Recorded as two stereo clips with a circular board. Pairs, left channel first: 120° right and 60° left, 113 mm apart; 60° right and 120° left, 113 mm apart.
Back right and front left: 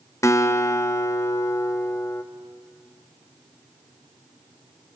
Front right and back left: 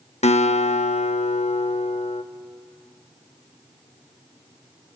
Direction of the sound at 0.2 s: 60° right.